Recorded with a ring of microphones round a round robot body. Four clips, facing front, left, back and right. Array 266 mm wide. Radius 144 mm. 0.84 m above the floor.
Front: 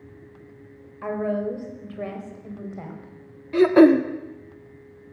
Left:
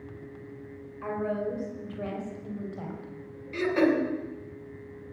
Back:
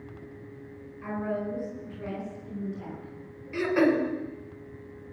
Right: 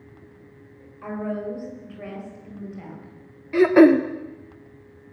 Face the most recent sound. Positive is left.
turn(degrees=-50)